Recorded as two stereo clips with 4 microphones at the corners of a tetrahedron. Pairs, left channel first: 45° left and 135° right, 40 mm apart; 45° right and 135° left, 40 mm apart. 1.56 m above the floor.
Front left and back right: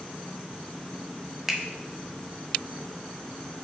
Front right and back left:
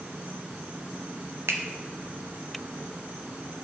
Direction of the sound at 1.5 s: 145° left.